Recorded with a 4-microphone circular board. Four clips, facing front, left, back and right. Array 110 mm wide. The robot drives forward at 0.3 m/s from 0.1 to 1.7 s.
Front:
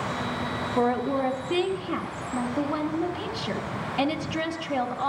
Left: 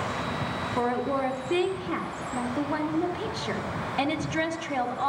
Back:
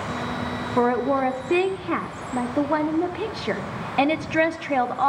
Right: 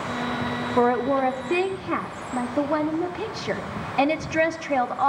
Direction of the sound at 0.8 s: 140° right.